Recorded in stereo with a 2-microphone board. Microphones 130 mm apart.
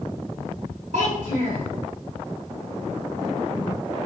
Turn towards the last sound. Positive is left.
turn(degrees=-65)  # may be behind; listen again after turning